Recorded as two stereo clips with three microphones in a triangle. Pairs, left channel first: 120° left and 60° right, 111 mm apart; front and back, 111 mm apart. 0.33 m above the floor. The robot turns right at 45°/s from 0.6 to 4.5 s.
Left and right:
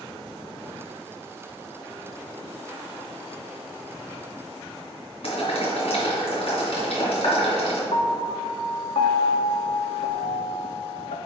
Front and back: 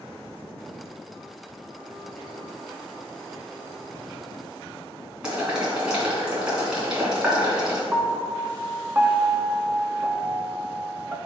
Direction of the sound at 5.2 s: 100° left.